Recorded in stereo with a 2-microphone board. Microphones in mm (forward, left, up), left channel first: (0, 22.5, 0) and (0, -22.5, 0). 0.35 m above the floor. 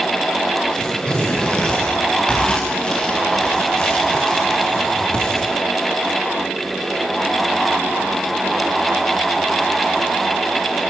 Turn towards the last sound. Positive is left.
turn(degrees=20)  # may be behind; listen again after turning